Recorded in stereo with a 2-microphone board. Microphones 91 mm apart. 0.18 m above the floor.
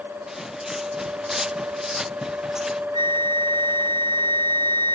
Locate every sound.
0.3 s footsteps: 5° right (ahead or behind)
2.9 s a flute: 50° right (ahead or behind)